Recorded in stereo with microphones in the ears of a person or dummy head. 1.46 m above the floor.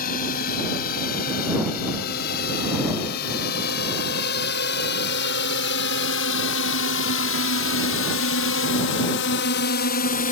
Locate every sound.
0.0 s a drone: 50° left (ahead or behind); by 10.3 s 45° left (ahead or behind)